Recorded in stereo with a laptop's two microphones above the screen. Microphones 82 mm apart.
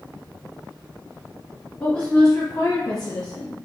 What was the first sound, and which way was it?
A woman speaking, 15° left (ahead or behind).